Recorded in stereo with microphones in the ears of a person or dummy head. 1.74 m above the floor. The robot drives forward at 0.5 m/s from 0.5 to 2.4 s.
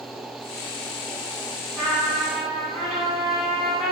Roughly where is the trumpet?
Centre.